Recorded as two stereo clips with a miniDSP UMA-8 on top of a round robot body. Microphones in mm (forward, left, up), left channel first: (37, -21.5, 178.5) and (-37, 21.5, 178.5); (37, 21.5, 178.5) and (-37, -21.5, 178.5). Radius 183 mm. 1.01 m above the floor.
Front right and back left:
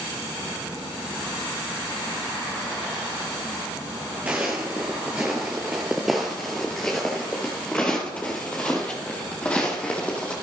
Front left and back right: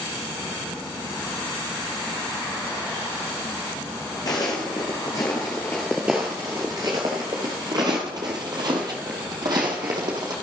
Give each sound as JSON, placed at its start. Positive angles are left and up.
{"t": 4.3, "sound": "footsteps", "azimuth_deg": 75, "distance_m": 1.3}